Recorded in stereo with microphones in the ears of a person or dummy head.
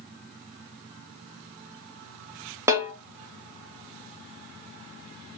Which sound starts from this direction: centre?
A snare drum, at 2.7 s.